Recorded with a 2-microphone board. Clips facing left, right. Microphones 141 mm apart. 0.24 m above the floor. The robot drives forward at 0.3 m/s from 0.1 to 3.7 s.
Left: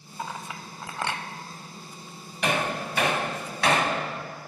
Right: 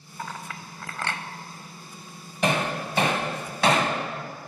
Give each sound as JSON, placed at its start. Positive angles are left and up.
{"t": 0.2, "sound": "a clink", "side_deg": 15, "distance_m": 0.5}
{"t": 2.4, "sound": "hammering", "side_deg": -35, "distance_m": 1.2}